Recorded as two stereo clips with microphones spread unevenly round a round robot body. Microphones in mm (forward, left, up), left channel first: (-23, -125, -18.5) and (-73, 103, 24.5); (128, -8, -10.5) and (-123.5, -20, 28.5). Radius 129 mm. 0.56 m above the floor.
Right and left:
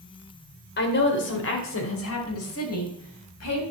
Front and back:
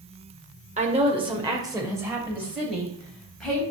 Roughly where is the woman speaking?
Right.